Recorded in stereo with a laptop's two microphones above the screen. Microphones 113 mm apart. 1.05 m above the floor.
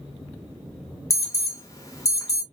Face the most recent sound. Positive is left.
turn(degrees=30)  # may be behind; listen again after turning